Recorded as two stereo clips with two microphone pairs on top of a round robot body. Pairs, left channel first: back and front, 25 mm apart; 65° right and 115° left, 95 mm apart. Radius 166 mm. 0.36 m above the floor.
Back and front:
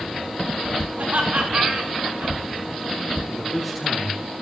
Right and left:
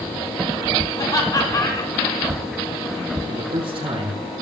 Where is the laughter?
20° right, 5 m.